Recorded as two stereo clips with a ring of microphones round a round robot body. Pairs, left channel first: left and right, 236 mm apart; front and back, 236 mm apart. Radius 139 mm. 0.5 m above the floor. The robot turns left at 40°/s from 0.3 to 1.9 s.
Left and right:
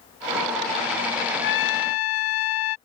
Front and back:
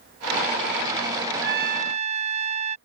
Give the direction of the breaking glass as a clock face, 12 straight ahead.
No breaking glass in this recording.